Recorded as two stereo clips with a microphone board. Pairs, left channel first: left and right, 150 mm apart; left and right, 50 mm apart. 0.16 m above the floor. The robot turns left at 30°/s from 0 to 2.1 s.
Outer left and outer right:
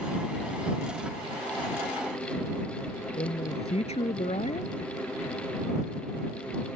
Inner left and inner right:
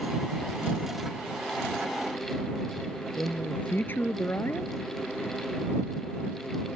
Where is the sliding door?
I don't hear a sliding door.